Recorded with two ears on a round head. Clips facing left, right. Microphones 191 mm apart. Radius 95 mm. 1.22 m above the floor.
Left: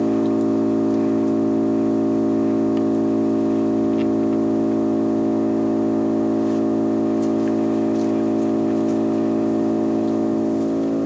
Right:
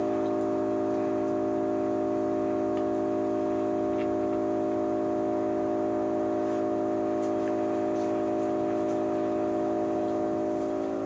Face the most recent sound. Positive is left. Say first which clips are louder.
# left 9 dB
turn(degrees=55)  # may be behind; listen again after turning